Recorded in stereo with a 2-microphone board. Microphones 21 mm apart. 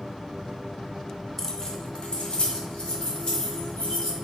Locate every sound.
1.4 s keys jangling: 15° left (ahead or behind), 0.6 m; by 4.1 s 75° left (ahead or behind), 2.5 m